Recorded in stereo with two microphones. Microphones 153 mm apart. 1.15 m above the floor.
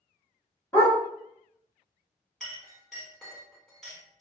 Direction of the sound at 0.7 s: 20° left (ahead or behind).